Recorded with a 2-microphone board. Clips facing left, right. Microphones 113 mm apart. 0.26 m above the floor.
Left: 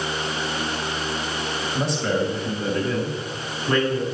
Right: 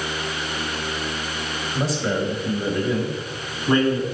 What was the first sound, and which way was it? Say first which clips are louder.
A man speaking: even; centre (ahead or behind).